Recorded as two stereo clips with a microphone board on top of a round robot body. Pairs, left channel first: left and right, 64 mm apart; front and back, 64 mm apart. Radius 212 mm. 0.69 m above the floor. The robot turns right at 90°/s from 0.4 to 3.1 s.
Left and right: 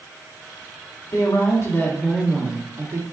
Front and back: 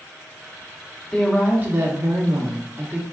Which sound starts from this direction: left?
A woman speaking, at 1.1 s.